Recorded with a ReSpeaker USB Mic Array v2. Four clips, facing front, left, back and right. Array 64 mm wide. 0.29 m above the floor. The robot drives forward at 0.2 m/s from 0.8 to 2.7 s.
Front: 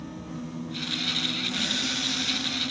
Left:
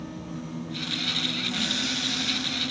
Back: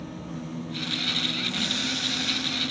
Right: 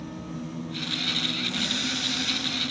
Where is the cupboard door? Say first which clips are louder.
Even, even; 50° left, 0.8 m; by 2.6 s 65° left, 0.7 m.